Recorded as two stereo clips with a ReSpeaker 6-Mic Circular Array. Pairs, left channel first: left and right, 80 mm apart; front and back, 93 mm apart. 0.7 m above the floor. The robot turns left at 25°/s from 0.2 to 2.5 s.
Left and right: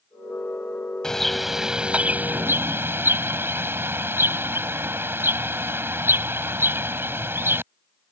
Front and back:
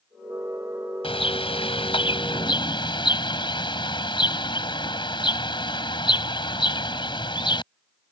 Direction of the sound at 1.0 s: 5° left.